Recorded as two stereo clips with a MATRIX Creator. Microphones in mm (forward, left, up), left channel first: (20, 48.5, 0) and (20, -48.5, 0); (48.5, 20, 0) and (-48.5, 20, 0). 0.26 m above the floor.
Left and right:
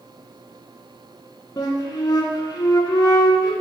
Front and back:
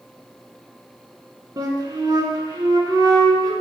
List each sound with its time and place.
1.6 s a flute: 130° left, 0.5 m